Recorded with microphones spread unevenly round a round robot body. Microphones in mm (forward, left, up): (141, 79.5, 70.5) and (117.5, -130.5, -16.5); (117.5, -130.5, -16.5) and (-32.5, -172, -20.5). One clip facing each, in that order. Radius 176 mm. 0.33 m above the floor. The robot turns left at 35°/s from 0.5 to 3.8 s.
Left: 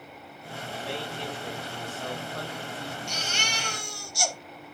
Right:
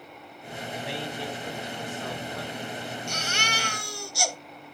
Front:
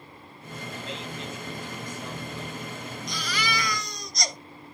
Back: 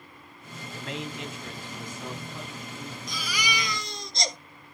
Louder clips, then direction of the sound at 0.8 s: Right 1 dB, back 3 dB; 150° right.